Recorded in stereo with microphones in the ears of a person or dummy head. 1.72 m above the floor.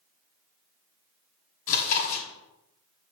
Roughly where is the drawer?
No drawer in this recording.